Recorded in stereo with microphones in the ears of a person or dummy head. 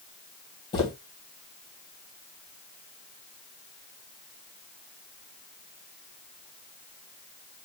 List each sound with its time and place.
0.7 s footsteps: 25° left (ahead or behind), 2 m